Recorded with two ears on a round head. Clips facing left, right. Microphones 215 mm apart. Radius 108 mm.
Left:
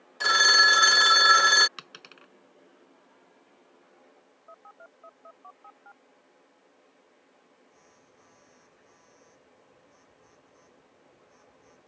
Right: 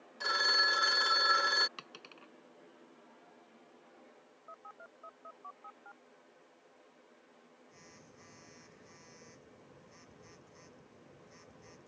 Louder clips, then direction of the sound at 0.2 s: Left 8 dB; 70° left (ahead or behind).